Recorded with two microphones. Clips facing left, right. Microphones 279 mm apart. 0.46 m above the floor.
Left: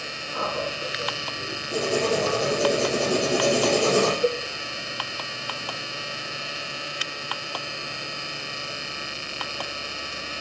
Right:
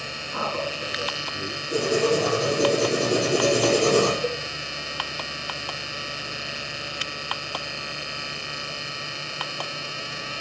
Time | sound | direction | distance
0.3 | a man speaking | 70° right (ahead or behind) | 4.5 m
1.7 | writing | 40° right (ahead or behind) | 5 m
4.2 | a cowbell | 40° left (ahead or behind) | 0.6 m